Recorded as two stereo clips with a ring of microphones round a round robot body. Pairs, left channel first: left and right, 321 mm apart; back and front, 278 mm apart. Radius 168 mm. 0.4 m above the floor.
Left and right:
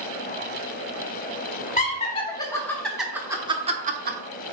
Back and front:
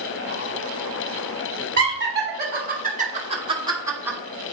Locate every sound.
1.8 s laughter: 30° left, 1.4 m; by 4.2 s 80° right, 1.1 m